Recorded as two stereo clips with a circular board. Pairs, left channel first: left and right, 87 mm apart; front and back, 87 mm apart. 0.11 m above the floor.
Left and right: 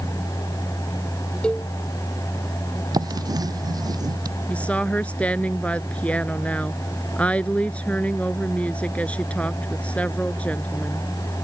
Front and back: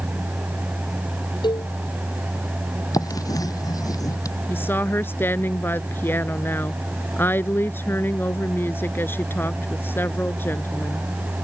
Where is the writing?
45° right.